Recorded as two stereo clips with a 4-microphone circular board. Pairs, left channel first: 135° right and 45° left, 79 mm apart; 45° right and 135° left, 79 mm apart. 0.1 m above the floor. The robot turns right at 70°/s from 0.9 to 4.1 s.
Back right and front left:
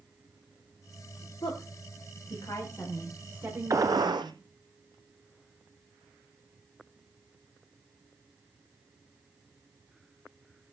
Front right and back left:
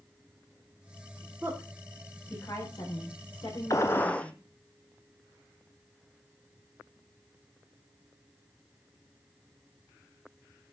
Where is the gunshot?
Straight ahead, 0.9 m; by 4.3 s 30° left, 0.9 m.